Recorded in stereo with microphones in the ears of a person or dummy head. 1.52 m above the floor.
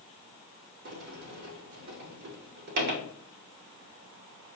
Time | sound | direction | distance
0.8 | a sliding door | 55° right (ahead or behind) | 1.0 m